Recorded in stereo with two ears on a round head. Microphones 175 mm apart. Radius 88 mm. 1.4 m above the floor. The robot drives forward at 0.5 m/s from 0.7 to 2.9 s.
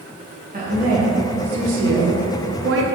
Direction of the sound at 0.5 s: 40° right (ahead or behind).